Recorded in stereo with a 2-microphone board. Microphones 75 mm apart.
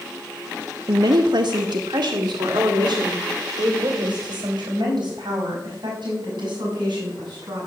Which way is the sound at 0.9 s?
75° right (ahead or behind).